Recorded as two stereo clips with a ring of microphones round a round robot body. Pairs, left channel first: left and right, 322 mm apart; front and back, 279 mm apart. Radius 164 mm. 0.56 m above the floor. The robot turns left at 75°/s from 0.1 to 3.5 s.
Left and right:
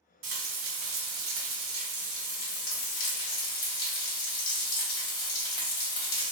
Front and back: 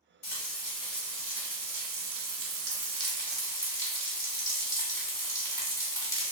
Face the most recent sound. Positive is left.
turn(degrees=80)